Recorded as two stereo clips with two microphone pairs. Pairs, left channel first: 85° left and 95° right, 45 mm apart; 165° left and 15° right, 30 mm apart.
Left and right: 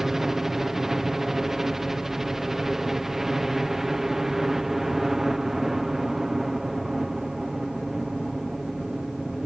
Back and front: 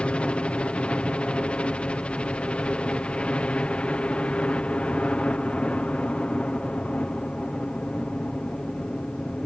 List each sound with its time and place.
0.0 s a helicopter: 175° right